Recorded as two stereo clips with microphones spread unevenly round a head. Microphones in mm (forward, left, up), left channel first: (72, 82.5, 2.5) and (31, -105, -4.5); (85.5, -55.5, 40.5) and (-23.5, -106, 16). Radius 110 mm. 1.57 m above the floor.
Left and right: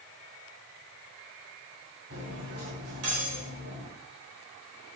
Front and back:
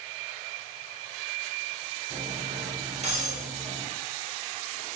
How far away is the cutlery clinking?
About 4.5 m.